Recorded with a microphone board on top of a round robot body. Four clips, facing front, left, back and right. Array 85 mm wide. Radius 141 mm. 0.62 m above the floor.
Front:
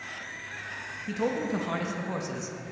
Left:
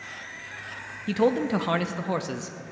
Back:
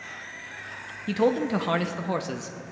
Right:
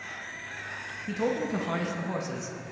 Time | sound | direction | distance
1.1 | a man speaking | 130° left | 0.8 m